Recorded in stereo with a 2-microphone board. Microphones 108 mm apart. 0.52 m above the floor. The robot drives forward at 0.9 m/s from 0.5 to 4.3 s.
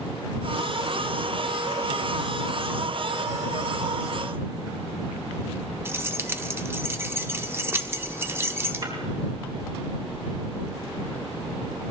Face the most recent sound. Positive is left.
turn(degrees=-50)  # may be behind; listen again after turning